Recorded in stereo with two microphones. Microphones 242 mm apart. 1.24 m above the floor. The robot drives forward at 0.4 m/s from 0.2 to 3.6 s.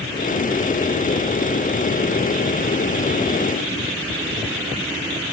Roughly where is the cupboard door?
I don't hear a cupboard door.